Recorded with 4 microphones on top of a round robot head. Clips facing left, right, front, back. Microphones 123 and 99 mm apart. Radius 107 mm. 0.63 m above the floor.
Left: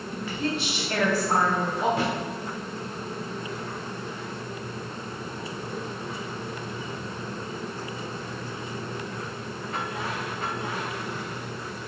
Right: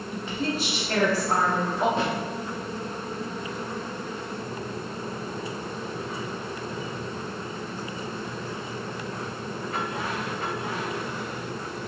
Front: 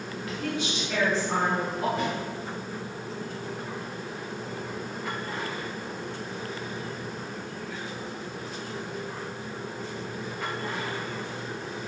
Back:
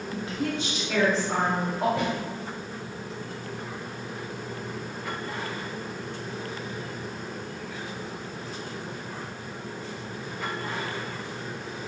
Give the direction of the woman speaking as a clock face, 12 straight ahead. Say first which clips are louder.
Even, back 2 dB; 5 o'clock.